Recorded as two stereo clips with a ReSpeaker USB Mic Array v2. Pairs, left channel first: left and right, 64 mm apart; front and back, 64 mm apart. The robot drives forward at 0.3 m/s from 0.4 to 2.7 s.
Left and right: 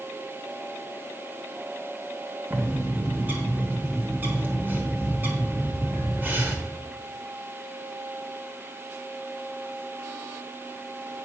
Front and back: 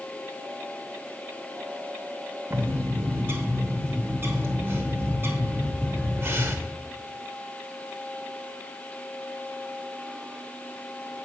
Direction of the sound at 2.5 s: 140° right.